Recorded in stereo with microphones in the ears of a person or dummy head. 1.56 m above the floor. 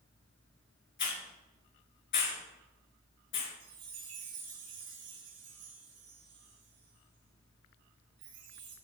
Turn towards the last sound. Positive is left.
turn(degrees=-85)